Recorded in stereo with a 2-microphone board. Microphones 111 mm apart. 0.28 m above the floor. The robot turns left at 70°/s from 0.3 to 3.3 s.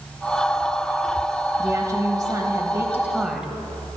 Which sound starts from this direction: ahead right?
A woman speaking, at 1.6 s.